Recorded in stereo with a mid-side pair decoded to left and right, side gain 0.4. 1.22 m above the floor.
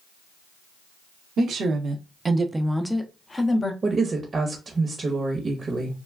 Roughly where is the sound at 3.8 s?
Ahead right.